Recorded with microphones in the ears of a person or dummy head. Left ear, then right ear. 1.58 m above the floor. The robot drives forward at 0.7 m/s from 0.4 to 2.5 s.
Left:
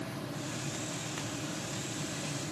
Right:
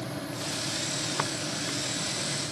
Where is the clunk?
No clunk in this recording.